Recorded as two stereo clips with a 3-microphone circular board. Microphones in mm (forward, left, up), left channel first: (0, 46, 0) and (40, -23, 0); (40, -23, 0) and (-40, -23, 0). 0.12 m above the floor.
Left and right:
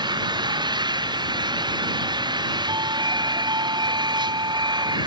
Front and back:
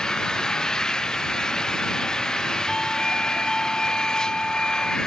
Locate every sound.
0.0 s an engine running: 80° right
2.7 s a doorbell: 80° right